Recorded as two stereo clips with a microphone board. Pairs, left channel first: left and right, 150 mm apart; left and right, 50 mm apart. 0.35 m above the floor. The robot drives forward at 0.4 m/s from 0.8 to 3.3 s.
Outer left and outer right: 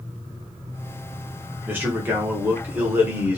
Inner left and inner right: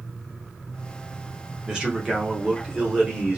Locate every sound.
1.7 s a man speaking: 15° right (ahead or behind), 0.9 m